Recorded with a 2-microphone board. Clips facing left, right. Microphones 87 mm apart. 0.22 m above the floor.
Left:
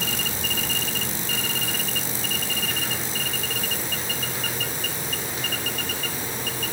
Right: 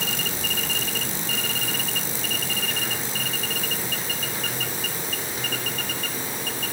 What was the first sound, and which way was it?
Only background noise.